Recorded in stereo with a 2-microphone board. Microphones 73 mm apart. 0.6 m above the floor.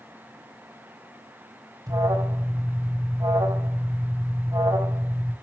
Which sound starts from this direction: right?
An alarm, at 1.9 s.